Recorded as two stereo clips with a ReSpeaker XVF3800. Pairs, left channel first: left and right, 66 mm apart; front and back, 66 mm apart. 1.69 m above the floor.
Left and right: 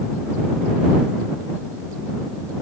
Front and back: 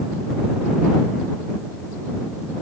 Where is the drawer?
I don't hear a drawer.